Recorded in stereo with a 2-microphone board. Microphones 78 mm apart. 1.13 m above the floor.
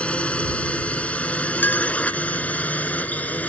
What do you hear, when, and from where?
0.0 s a drone: 15° left (ahead or behind); by 3.5 s 20° left (ahead or behind)
1.6 s a clink: 25° left (ahead or behind)